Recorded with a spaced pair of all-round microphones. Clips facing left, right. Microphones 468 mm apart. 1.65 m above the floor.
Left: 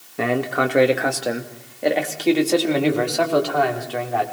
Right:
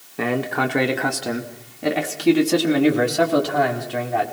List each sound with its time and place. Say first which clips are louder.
0.2 s a man speaking: left 1 dB; centre (ahead or behind), 2 m; by 4.3 s 40° right (ahead or behind), 4 m